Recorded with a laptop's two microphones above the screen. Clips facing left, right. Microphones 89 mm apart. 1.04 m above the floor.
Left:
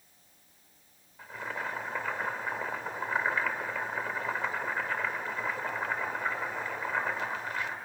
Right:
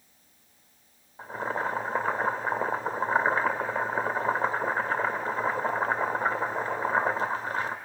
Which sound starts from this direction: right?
Boiling, at 1.2 s.